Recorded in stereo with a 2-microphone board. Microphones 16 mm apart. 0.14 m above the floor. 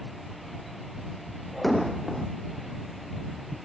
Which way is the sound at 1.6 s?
10° left (ahead or behind).